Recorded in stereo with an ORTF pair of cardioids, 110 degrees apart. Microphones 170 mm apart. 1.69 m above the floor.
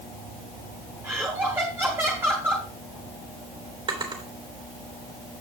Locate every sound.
1.0 s laughter: 15° right, 1.4 m
3.9 s a drawer: 30° right, 3 m